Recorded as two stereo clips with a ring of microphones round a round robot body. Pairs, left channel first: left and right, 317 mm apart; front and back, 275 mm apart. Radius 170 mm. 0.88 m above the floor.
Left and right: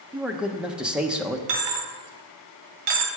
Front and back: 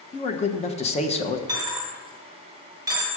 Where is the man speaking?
10° right, 0.8 m.